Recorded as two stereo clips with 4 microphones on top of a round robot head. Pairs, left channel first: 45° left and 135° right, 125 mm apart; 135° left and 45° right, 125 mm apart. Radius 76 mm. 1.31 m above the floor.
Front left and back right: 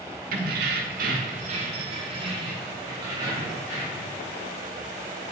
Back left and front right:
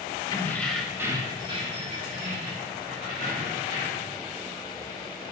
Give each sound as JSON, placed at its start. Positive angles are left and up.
{"t": 0.3, "sound": "keys jangling", "azimuth_deg": -160, "distance_m": 1.0}